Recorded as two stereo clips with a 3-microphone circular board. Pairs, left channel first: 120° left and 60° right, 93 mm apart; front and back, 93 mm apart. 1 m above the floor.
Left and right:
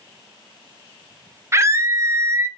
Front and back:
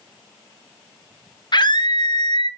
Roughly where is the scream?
Ahead.